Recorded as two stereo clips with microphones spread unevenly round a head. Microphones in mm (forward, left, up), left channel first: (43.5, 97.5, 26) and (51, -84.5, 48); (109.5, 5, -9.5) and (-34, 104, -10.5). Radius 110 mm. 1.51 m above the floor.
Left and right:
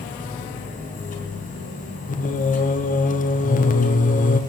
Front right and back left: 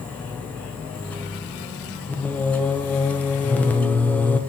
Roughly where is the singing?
Ahead left.